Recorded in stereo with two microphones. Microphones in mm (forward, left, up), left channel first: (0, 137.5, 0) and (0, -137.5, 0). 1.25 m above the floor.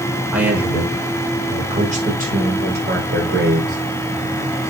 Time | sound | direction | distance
0.3 | a man speaking | 5° right (ahead or behind) | 4.5 m